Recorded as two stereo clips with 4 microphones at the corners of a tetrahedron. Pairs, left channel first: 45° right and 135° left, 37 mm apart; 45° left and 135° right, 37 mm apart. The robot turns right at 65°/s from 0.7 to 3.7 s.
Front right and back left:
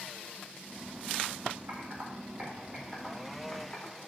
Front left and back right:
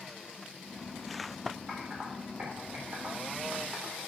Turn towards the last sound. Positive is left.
turn(degrees=-90)